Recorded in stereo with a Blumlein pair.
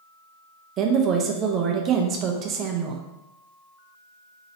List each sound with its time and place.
0.8 s a woman speaking: 30° right, 0.7 m